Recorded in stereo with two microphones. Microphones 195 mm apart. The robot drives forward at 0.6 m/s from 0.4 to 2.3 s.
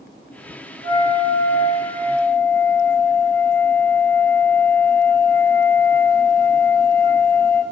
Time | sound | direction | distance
0.8 | a flute | 20° left (ahead or behind) | 0.6 m